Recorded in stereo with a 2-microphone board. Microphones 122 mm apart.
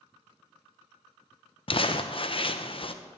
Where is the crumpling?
50° left (ahead or behind), 0.7 m.